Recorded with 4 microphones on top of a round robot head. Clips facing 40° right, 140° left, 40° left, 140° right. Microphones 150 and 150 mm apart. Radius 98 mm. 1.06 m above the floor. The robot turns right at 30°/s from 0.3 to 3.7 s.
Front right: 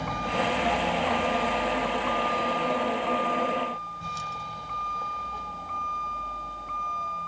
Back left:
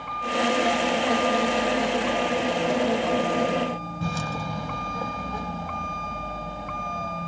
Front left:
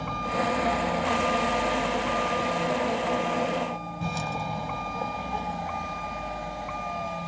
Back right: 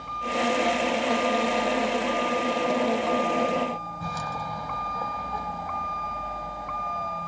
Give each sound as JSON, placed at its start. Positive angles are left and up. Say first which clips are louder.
{"t": 0.0, "sound": "a vehicle", "louder": "back left 2 dB, back right 1 dB", "azimuth_deg": 10}